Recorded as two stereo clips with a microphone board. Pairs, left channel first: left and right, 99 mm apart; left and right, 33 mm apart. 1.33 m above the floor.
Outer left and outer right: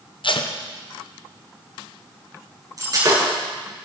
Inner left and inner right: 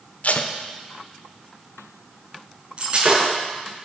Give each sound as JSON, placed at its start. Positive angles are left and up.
{"t": 0.2, "sound": "tape being pulled", "side_deg": 60, "distance_m": 0.8}
{"t": 2.8, "sound": "breaking glass", "side_deg": -40, "distance_m": 6.5}